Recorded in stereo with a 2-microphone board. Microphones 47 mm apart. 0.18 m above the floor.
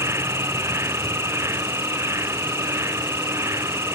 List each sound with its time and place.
0.0 s an insect: 85° right